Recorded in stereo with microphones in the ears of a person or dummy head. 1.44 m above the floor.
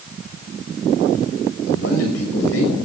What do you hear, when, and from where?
1.7 s a man speaking: 75° left (ahead or behind), 6.5 m